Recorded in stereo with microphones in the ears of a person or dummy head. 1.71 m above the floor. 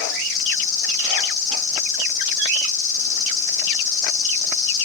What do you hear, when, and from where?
0.0 s an insect: 20° left (ahead or behind), 3 m